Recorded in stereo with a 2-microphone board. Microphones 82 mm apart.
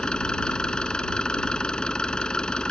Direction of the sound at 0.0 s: 10° left (ahead or behind).